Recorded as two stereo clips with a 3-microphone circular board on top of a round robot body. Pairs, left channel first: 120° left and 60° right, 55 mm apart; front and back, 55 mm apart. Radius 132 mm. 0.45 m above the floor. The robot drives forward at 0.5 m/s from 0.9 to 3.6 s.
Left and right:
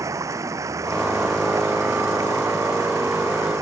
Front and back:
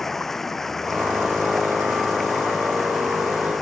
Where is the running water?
85° right; by 3.6 s 90° right.